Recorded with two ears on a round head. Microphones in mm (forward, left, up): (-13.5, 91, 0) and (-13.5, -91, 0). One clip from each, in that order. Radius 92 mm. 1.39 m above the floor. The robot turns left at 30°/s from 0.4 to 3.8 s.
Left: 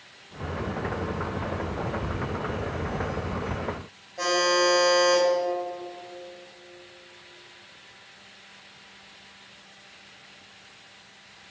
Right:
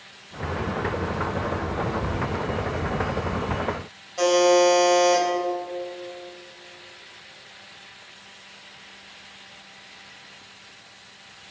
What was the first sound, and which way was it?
A buzzer, 65° right (ahead or behind).